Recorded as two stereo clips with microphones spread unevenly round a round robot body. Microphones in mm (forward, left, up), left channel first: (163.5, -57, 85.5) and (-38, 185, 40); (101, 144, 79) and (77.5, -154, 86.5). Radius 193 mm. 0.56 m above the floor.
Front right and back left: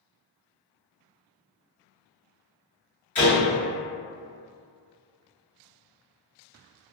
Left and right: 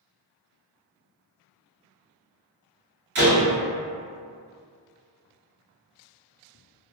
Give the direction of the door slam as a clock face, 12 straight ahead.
4 o'clock.